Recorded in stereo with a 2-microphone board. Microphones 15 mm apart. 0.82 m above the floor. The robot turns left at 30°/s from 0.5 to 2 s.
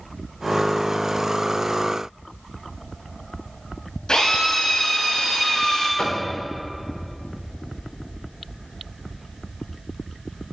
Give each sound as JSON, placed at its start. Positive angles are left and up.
{"t": 4.1, "sound": "a drill", "side_deg": 85, "distance_m": 5.5}
{"t": 6.0, "sound": "knocking", "side_deg": 70, "distance_m": 2.5}